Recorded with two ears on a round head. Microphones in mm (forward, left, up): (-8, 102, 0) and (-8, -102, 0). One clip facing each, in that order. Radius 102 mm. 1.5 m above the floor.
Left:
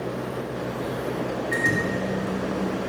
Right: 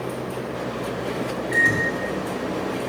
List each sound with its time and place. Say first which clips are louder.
1.5 s a microwave: even; 20° left (ahead or behind), 2.5 m